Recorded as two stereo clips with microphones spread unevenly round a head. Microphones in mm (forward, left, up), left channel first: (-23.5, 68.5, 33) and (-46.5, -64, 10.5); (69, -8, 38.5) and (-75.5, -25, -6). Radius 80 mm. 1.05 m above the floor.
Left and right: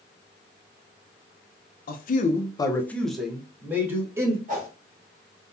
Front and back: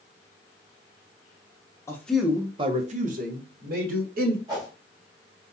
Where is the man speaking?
85° left, 0.6 m; by 4.4 s 165° right, 1.5 m.